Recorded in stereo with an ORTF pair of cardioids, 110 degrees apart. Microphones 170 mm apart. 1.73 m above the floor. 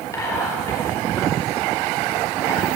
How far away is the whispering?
About 5 m.